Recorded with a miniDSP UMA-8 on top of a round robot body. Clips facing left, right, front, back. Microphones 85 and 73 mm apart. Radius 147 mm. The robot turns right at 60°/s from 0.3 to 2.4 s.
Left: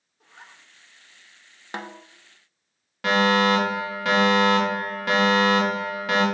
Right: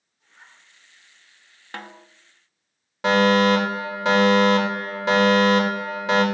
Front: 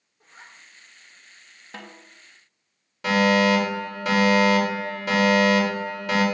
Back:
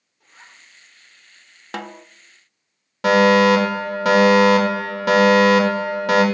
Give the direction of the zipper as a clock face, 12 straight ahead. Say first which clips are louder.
Left 4 dB, even; 10 o'clock.